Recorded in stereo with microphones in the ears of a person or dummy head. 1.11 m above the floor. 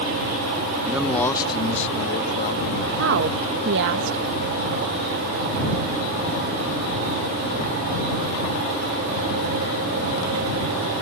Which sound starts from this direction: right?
A woman speaking, at 3.0 s.